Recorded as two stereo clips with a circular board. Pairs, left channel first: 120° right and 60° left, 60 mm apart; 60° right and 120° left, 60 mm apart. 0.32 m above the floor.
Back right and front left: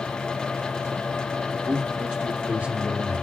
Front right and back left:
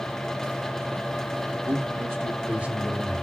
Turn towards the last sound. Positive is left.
turn(degrees=20)